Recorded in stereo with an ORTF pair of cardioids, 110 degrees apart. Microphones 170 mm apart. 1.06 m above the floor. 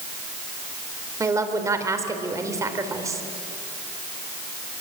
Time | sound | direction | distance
1.2 | a woman speaking | 20° right | 4 m